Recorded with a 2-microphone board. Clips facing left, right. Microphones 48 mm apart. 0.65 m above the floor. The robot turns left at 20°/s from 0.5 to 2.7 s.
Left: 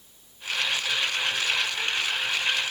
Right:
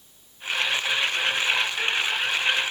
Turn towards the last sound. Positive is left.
No sound to turn to.